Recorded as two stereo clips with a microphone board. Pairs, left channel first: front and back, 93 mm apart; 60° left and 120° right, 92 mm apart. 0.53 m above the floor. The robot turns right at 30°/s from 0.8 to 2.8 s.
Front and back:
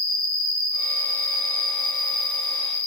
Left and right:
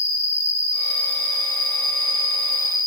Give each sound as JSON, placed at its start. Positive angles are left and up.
{"t": 0.0, "sound": "an insect", "azimuth_deg": 175, "distance_m": 0.9}